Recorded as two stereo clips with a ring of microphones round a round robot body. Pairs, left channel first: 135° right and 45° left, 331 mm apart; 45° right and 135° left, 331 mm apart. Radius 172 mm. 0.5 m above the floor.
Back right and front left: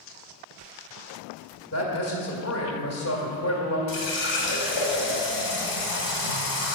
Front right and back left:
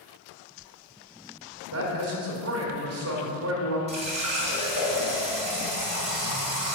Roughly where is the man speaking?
Behind.